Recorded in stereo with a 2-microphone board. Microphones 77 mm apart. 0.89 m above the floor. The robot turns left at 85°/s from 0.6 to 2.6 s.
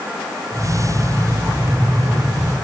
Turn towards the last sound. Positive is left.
No sound to turn to.